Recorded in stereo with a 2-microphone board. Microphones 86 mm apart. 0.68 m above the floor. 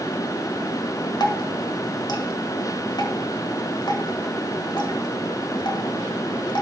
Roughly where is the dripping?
Left.